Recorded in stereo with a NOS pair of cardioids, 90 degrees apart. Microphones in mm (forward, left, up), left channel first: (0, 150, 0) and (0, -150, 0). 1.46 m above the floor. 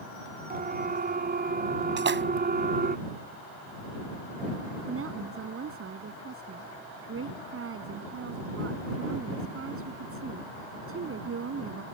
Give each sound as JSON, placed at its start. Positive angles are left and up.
{"t": 0.5, "sound": "a siren", "azimuth_deg": -30}
{"t": 2.0, "sound": "a splash", "azimuth_deg": -35}
{"t": 4.9, "sound": "a woman speaking", "azimuth_deg": -45}